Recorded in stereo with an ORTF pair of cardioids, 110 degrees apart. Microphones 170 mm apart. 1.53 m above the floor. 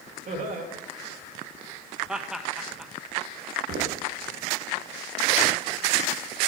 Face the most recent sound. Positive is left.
turn(degrees=-65)